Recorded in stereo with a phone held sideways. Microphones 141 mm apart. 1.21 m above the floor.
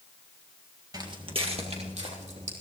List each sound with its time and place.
0.9 s footsteps: 30° right (ahead or behind), 1.5 m; by 2.5 s 55° right (ahead or behind), 3.5 m